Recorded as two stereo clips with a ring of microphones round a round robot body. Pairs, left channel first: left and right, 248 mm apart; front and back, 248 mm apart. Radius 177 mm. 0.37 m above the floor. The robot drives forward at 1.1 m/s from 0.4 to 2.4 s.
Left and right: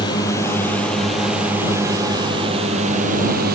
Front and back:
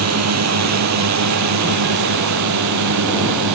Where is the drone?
170° left; by 3.5 s 155° right.